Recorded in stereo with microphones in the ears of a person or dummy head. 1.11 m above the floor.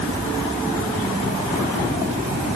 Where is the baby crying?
No baby crying in this recording.